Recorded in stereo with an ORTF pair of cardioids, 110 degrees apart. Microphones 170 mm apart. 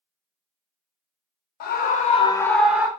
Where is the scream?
65° left, 0.7 m; by 2.9 s 15° right, 0.7 m.